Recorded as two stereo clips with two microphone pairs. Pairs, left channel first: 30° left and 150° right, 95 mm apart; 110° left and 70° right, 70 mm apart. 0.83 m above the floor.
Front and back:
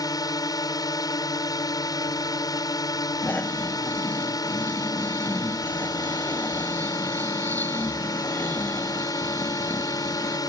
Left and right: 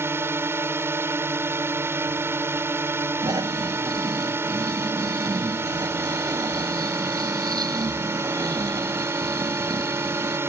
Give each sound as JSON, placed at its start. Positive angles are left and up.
{"t": 0.0, "sound": "a drone", "azimuth_deg": -15}
{"t": 3.2, "sound": "snoring", "azimuth_deg": -45}